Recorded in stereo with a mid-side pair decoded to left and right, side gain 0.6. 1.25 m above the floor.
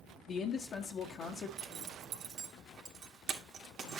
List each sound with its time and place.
0.3 s a man speaking: 45° left, 0.7 m
1.6 s a zipper: 45° right, 1.5 m